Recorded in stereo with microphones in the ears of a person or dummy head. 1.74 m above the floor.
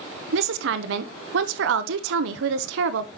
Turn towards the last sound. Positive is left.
turn(degrees=-75)  # may be behind; listen again after turning